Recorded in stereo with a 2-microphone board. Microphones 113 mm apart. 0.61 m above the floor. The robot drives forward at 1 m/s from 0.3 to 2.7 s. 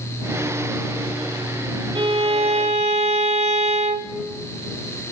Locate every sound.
1.9 s a violin: 50° right (ahead or behind), 1.6 m; by 4.2 s 80° right, 1.3 m